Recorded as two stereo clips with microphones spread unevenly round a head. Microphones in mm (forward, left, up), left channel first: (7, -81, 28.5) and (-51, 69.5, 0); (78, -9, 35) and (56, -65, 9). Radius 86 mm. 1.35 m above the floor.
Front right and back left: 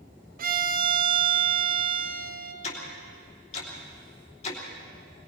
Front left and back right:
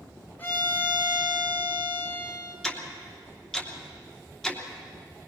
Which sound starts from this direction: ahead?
Ticking, at 2.6 s.